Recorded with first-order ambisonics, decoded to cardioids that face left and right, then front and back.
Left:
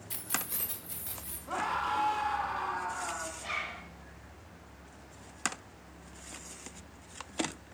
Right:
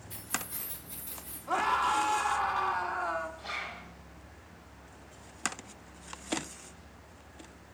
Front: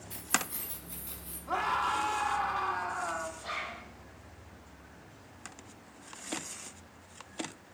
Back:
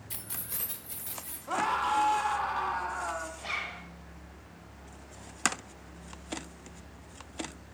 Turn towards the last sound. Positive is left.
turn(degrees=155)